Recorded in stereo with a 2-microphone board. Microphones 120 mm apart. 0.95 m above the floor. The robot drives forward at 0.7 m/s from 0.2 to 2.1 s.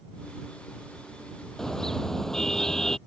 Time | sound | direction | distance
1.6 | a car horn | 5° left (ahead or behind) | ?